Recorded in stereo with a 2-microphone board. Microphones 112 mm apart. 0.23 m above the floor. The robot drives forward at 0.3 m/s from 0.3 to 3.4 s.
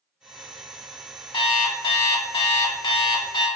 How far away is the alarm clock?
About 0.6 m.